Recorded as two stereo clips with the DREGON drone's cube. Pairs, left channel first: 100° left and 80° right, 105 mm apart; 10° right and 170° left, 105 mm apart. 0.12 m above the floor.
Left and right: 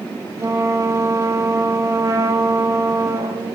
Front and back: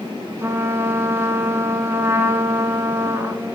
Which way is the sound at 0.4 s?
130° right.